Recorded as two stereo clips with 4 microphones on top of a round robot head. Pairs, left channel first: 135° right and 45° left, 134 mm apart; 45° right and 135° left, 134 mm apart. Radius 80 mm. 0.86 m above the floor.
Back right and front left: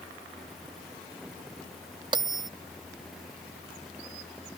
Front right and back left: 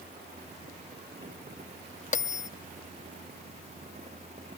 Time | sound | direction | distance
2.1 | a bell | 15° right | ?